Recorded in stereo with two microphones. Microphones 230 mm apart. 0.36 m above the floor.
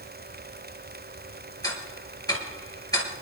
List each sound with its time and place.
1.6 s ticking: 15° left (ahead or behind), 4 m